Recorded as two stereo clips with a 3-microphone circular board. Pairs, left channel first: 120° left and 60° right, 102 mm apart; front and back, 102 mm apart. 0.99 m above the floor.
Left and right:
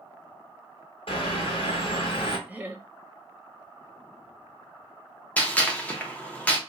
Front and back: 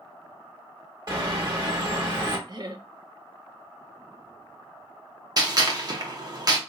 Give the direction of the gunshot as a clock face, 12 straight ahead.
6 o'clock.